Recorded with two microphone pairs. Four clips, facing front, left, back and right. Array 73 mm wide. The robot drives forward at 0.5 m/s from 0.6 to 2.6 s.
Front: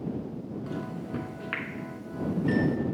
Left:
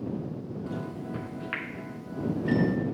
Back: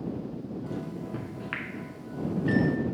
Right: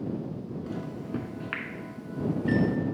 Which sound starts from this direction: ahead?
A microwave, at 0.7 s.